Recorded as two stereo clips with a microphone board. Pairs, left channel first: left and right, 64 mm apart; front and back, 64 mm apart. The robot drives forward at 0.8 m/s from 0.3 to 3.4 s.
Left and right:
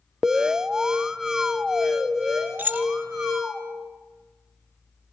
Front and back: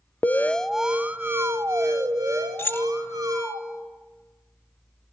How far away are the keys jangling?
About 1.2 m.